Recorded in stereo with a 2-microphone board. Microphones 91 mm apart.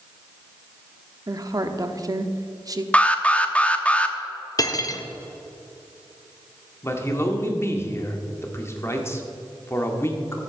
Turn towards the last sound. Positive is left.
turn(degrees=30)  # may be behind; listen again after turning